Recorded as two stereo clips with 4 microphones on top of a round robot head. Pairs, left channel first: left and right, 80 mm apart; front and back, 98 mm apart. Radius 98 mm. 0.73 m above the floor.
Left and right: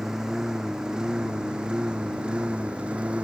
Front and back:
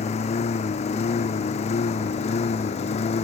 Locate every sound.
0.0 s a lawn mower: 5° right; by 3.2 s 10° right